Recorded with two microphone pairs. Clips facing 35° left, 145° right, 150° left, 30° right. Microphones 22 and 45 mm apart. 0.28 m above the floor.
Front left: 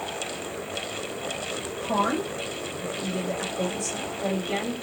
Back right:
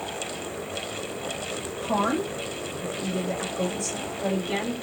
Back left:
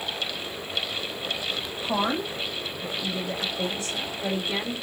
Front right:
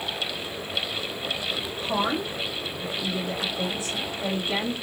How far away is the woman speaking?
About 1.6 m.